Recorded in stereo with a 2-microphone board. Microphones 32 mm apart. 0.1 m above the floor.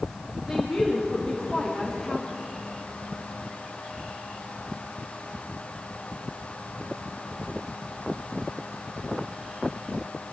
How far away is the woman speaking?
About 6 m.